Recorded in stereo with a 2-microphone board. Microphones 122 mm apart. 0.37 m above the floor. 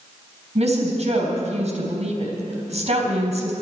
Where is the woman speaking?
60° right (ahead or behind), 3 m.